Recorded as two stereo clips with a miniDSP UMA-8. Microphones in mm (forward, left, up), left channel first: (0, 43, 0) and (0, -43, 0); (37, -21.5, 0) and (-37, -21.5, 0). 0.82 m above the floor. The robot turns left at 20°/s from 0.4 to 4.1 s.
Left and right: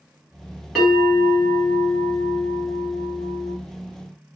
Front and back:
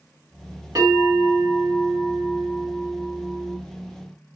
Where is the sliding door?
I don't hear a sliding door.